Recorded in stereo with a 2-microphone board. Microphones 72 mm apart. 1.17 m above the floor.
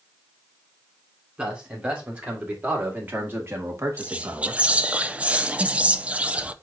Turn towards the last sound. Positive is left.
turn(degrees=-20)  # may be behind; listen again after turning